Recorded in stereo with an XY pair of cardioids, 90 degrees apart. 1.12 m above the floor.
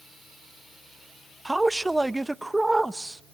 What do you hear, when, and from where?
1.4 s a man speaking: 15° right, 0.7 m